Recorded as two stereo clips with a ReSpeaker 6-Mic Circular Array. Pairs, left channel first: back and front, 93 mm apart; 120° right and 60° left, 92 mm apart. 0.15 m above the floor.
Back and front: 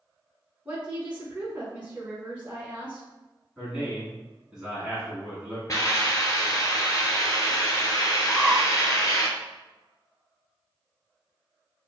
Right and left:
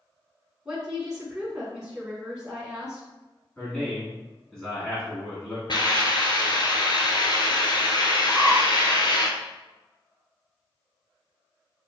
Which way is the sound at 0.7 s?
5° right.